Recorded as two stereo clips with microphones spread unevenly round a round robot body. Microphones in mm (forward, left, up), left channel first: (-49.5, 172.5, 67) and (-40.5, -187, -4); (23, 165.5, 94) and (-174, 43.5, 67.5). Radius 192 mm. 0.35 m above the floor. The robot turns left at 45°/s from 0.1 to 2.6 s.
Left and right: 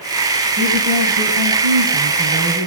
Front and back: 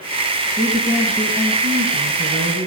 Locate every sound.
0.6 s a woman speaking: 45° right, 2 m; by 2.7 s 135° right, 2 m